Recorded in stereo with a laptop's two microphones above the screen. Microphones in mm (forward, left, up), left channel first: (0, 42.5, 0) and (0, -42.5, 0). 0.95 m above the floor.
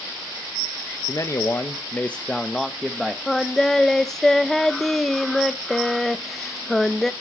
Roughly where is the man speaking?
Left.